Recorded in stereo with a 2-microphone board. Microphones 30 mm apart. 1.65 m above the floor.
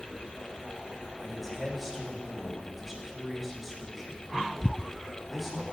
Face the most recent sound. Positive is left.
turn(degrees=0)  # may be behind; listen again after turning